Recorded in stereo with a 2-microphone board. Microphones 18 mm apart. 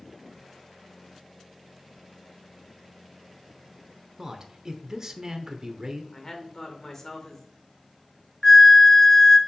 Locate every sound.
4.2 s a man speaking: 35° right (ahead or behind), 1.0 m
6.1 s a woman speaking: 30° left (ahead or behind), 1.6 m
8.4 s a flute: 25° left (ahead or behind), 0.7 m